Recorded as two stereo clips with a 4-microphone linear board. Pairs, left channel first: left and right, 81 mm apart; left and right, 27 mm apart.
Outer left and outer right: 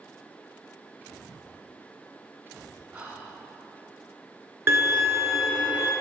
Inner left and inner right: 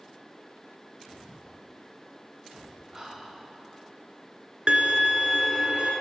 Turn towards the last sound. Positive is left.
turn(degrees=-30)  # may be behind; listen again after turning